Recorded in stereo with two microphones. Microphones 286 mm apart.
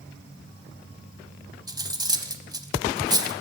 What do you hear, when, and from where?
1.7 s cutlery clinking: 15° right (ahead or behind), 0.7 m